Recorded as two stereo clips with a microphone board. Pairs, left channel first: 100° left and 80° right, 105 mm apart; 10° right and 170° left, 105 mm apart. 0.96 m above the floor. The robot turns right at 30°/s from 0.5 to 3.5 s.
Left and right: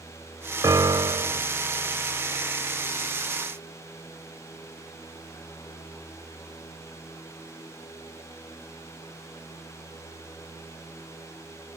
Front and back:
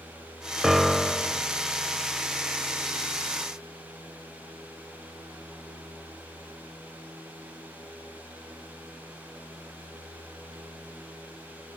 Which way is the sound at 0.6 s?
105° right.